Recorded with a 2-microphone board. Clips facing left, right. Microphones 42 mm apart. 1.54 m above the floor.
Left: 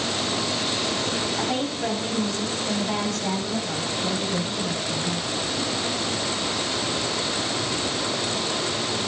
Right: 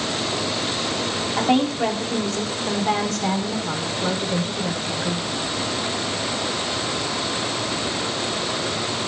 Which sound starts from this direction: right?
A woman speaking, at 1.4 s.